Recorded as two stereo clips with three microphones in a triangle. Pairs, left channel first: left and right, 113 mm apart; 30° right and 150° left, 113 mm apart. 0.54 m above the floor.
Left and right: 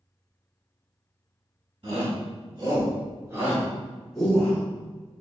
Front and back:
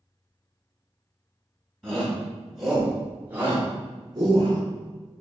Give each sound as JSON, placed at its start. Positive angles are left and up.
{"t": 1.8, "sound": "a shout", "azimuth_deg": -115, "distance_m": 1.4}